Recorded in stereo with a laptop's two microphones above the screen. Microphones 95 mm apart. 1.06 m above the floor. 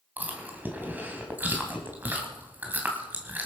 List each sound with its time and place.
0.2 s chewing: 20° right (ahead or behind), 2.5 m